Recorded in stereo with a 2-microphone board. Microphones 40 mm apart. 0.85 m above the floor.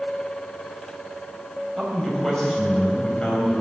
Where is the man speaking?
Centre (ahead or behind), 4.5 m; by 3.5 s 25° left (ahead or behind), 4.5 m.